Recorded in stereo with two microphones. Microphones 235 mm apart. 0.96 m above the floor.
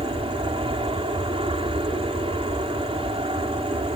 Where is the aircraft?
25° right (ahead or behind).